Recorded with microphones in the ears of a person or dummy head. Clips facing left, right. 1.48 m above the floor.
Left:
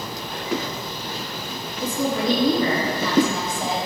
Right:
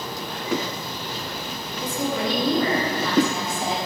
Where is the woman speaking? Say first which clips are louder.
Left 3 dB; 70° left (ahead or behind), 2.5 m.